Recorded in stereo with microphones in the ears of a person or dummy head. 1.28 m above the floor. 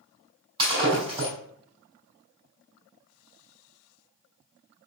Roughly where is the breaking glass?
Right.